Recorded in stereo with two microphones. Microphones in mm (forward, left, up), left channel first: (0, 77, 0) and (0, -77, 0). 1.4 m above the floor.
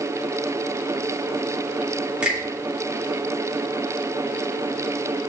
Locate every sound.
2.2 s a finger snap: 5° right (ahead or behind), 2.5 m